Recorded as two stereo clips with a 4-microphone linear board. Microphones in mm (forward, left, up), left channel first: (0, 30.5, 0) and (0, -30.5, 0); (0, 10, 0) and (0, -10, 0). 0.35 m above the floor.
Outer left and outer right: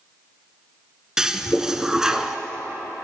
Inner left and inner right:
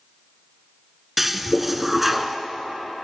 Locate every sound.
1.2 s a toilet flushing: 10° right (ahead or behind), 0.6 m